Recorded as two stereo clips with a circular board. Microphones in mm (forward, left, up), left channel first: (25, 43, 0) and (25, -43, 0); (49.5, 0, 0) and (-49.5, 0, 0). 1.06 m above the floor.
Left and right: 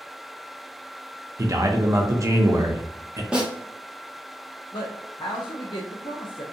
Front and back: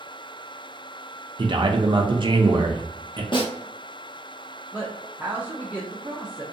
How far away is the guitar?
No guitar in this recording.